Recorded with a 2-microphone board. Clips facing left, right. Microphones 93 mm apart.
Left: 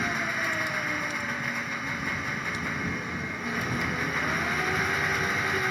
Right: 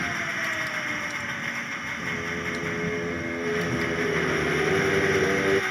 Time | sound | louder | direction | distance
0.0 | an engine running | left 1 dB | 5° left (ahead or behind) | ?
2.0 | singing | right 1 dB | 70° right (ahead or behind) | ?